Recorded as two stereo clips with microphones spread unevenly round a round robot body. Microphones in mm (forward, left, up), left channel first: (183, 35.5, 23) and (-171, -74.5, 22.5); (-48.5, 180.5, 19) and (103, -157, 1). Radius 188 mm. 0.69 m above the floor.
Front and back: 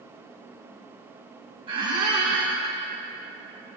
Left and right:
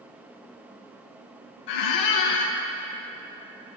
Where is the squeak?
120° left, 0.7 m.